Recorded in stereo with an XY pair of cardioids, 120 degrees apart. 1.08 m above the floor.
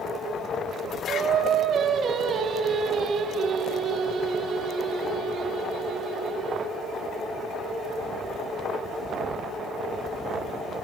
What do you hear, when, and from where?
1.1 s singing: 55° right, 1.4 m